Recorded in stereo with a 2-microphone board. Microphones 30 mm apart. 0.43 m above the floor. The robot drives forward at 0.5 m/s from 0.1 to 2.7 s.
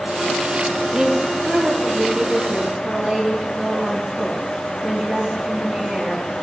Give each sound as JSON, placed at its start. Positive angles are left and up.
{"t": 0.9, "sound": "a woman speaking", "side_deg": -30, "distance_m": 8.0}